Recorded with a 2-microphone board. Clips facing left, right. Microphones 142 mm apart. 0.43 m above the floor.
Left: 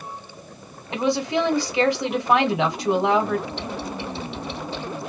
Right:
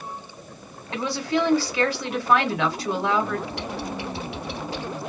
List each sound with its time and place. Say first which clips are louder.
0.9 s a woman speaking: left 3 dB; 20° left (ahead or behind), 1.1 m
3.5 s typing on a keyboard: even; 85° right, 2.5 m